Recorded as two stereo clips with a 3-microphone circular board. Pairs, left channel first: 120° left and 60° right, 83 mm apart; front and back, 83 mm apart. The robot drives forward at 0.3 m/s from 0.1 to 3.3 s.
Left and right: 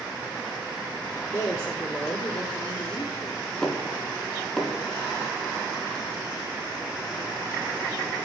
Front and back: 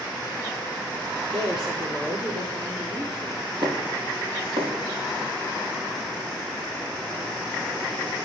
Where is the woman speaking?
175° left, 6 m.